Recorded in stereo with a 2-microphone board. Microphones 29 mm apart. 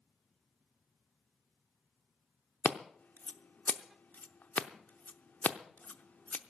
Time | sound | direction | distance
2.6 | scissors | 75° left (ahead or behind) | 0.7 m